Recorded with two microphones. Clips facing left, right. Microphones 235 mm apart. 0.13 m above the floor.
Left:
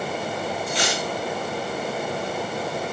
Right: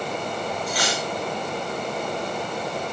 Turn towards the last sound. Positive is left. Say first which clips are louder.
# left 1 dB
turn(degrees=25)  # may be behind; listen again after turning